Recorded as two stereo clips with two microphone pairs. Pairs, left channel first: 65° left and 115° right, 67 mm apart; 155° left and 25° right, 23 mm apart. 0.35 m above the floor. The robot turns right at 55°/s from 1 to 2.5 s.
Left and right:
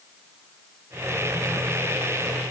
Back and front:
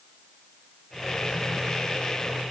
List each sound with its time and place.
Only background noise.